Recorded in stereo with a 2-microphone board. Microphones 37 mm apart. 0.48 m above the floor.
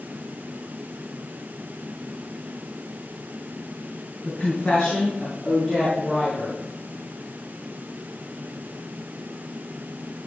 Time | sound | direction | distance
4.2 | a woman speaking | 30° left (ahead or behind) | 4 m